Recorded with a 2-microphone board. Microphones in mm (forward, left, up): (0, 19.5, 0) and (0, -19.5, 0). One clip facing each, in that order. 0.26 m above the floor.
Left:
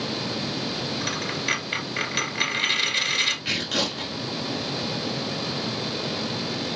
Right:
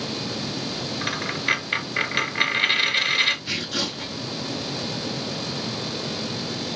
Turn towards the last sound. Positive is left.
turn(degrees=80)